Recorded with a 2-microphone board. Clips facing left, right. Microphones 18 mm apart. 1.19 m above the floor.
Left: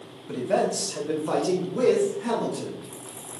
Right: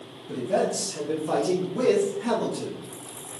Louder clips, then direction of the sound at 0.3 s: Left 1 dB; 70° left (ahead or behind).